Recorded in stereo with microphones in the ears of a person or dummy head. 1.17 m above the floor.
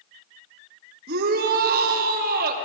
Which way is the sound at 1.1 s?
55° right (ahead or behind).